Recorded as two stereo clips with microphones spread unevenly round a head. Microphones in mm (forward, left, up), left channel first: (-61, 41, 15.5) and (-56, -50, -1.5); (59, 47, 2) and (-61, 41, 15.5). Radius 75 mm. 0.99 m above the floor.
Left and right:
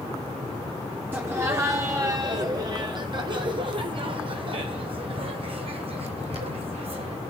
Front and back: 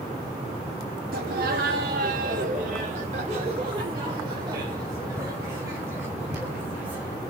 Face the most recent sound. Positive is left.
turn(degrees=-95)